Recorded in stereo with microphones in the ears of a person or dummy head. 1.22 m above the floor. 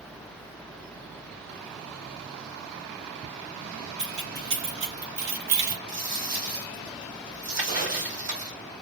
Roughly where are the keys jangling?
Right.